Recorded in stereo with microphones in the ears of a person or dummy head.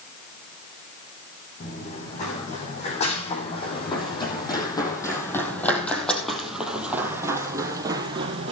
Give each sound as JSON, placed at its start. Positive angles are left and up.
{"t": 1.6, "sound": "running footsteps", "side_deg": 40, "distance_m": 7.0}